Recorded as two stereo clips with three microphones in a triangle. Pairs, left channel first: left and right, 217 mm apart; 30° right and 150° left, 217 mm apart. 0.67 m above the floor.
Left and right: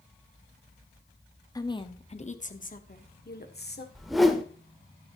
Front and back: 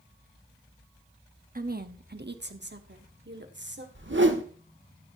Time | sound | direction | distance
1.6 | a woman speaking | 155° left | 0.9 m
4.0 | a whoosh | straight behind | 1.2 m